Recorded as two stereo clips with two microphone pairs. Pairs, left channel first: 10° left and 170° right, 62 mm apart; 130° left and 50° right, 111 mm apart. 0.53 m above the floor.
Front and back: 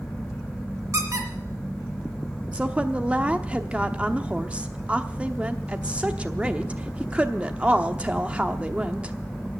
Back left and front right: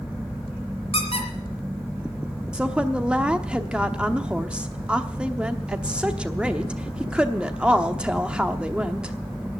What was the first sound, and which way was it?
A squeak, 160° left.